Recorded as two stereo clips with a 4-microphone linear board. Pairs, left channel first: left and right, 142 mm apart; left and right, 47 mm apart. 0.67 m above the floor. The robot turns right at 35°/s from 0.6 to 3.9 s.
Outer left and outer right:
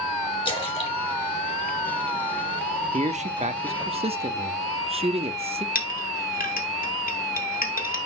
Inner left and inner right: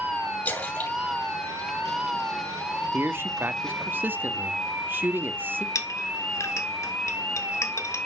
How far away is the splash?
About 2.5 m.